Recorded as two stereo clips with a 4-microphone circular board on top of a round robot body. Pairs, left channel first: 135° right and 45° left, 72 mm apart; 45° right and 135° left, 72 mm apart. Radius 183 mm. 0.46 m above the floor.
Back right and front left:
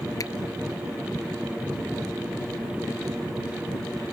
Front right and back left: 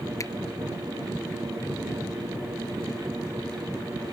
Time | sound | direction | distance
0.2 | a finger snap | 95° right | ?